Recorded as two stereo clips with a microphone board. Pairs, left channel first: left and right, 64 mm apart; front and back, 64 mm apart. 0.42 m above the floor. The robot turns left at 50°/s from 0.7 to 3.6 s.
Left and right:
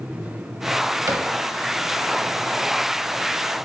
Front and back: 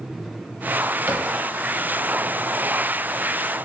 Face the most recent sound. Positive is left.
turn(degrees=110)